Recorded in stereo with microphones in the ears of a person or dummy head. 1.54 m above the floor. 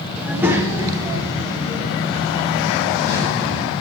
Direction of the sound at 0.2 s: 5° right (ahead or behind).